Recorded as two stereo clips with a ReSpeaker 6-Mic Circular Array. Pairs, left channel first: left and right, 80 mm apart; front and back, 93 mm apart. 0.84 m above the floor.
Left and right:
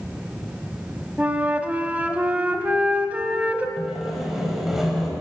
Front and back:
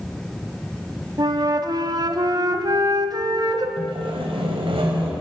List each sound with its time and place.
1.2 s a flute: 155° right, 1.0 m
3.8 s sawing: 175° right, 3 m